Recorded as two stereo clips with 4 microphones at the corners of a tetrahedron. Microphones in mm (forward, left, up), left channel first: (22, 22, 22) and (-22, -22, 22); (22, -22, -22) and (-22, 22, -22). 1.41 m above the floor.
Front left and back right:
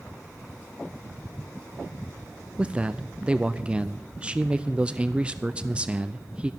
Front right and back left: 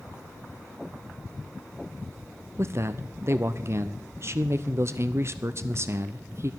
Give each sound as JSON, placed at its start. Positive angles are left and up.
{"t": 2.6, "sound": "a man speaking", "azimuth_deg": 160, "distance_m": 0.5}